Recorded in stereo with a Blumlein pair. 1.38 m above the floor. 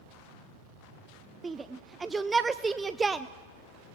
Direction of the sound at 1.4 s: 15° right.